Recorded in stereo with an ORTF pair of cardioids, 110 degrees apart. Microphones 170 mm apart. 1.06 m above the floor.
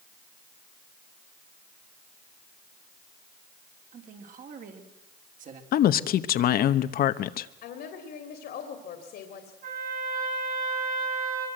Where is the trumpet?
60° right, 9 m.